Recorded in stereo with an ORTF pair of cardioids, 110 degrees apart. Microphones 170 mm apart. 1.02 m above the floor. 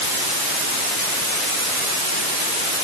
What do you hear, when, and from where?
Only background noise.